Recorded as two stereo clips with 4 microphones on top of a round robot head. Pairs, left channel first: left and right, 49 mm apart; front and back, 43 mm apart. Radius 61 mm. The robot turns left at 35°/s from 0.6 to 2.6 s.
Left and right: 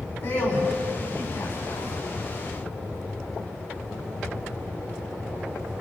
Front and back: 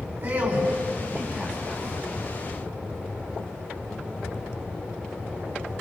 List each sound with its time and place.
0.2 s a man speaking: 145° left, 7 m; by 1.9 s 100° left, 7 m